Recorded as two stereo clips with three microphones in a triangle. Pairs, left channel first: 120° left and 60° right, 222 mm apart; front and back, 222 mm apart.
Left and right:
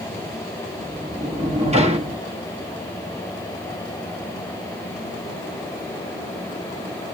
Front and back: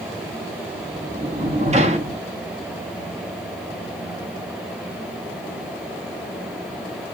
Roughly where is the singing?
I don't hear singing.